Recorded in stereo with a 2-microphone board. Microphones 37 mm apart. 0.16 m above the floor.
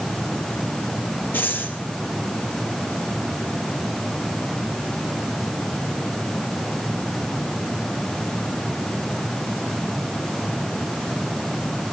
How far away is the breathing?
About 4 m.